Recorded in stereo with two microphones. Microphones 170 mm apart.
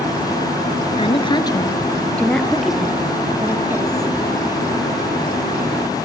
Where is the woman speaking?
35° left (ahead or behind), 2 m; by 4.1 s 15° right (ahead or behind), 4.5 m.